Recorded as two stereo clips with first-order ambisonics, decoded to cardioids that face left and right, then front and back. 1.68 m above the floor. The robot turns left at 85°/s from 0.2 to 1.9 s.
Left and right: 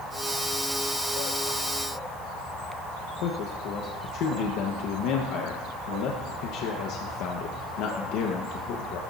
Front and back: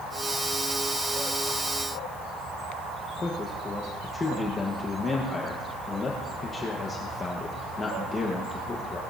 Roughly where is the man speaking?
Left.